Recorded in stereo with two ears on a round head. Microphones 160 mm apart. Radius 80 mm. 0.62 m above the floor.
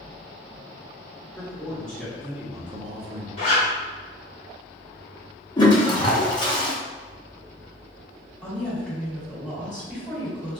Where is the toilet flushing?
25° left (ahead or behind), 0.9 m.